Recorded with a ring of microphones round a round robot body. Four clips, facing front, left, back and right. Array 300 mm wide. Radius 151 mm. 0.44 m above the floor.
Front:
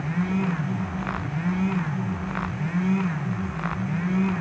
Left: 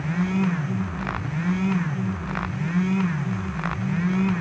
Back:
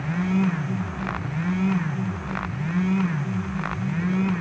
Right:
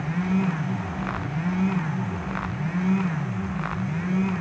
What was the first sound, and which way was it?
Only background noise.